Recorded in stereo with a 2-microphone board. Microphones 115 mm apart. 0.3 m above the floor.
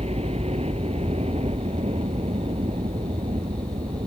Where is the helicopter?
70° right (ahead or behind).